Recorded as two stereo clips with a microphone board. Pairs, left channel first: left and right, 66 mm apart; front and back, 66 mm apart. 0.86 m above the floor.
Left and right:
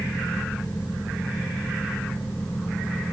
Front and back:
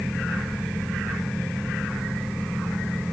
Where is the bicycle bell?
I don't hear a bicycle bell.